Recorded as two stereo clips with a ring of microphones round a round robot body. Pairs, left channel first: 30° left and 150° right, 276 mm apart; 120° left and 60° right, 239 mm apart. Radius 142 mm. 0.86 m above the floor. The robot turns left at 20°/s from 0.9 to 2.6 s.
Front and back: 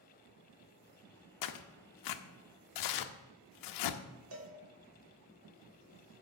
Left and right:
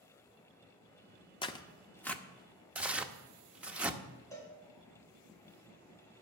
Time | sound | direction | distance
1.4 | tearing paper | 50° left | 0.7 m
4.3 | a cowbell | 165° right | 1.6 m